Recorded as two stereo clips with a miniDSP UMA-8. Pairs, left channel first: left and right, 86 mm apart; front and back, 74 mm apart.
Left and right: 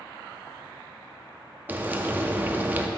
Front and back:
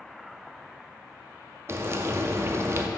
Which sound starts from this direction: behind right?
Frying, at 1.7 s.